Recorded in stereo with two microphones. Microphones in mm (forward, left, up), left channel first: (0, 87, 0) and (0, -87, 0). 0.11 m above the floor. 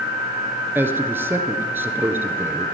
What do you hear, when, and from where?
0.8 s a man speaking: 10° right (ahead or behind), 1.4 m